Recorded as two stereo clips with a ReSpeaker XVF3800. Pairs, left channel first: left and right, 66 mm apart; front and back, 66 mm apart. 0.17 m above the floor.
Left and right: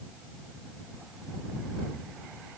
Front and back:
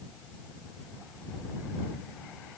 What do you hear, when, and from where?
Only background noise.